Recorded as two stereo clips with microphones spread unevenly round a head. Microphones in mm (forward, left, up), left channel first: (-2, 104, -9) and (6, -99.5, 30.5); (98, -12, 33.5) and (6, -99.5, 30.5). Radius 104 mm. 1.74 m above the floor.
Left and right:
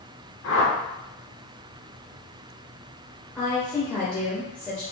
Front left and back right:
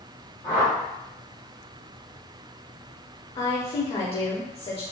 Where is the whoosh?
125° left, 1.0 m.